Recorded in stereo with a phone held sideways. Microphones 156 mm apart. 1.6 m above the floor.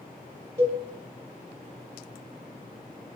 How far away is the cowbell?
About 1.2 m.